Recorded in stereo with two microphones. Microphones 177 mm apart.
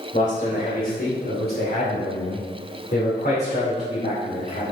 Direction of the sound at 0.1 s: 45° left (ahead or behind).